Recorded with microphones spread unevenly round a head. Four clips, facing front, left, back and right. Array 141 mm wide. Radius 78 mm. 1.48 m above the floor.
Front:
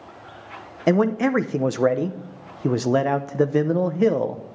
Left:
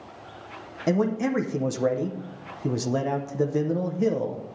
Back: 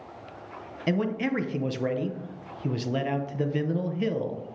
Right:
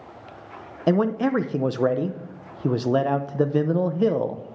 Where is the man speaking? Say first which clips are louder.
Right 3 dB, front 8 dB; 25° right, 0.6 m.